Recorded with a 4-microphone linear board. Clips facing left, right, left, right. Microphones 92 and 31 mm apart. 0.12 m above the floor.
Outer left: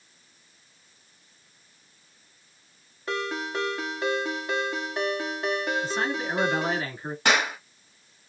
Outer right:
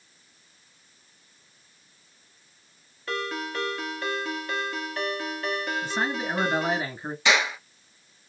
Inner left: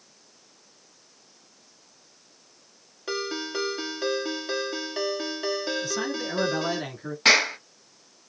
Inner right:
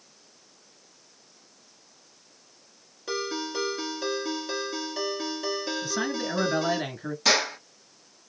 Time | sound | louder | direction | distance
3.1 | a ringtone | outer left 1 dB, even | 20° left (ahead or behind) | 1.0 m
5.8 | a man speaking | even, even | 15° right (ahead or behind) | 1.1 m
7.2 | a clap | even, inner left 5 dB | 50° left (ahead or behind) | 1.4 m